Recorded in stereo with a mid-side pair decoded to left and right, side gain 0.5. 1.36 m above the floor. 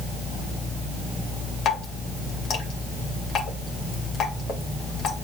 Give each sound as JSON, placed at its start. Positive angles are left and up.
{"t": 1.6, "sound": "dripping", "azimuth_deg": 55, "distance_m": 3.0}